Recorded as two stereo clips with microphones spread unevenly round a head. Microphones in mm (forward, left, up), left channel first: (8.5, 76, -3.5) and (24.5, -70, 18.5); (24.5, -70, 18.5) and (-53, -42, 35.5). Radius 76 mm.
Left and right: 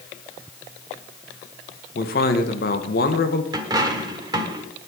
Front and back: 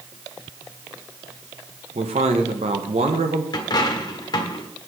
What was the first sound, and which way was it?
A man speaking, 130° left.